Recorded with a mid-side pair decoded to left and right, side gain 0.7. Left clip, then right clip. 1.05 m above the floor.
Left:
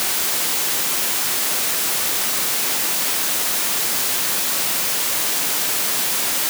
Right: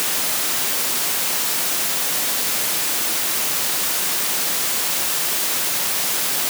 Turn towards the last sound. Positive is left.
No sound to turn to.